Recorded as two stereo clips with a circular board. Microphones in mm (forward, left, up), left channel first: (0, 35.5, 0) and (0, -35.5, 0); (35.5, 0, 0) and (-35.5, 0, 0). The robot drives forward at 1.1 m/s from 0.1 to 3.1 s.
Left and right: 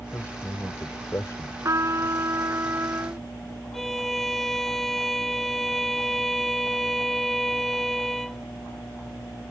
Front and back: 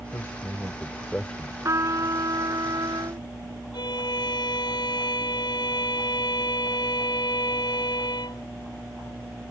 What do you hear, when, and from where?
0.1 s a man speaking: 40° left; by 1.5 s 80° left
1.6 s a trumpet: 135° right; by 3.3 s 150° right
3.7 s a violin: 5° left